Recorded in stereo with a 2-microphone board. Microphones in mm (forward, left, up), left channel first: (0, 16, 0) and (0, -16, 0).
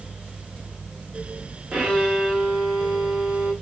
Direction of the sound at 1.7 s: 35° right (ahead or behind).